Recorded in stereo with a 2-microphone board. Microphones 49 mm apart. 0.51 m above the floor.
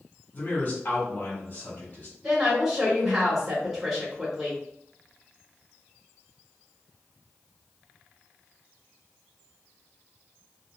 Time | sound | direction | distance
0.3 | a man speaking | 45° left (ahead or behind) | 1.5 m
2.2 | a woman speaking | 5° right (ahead or behind) | 1.4 m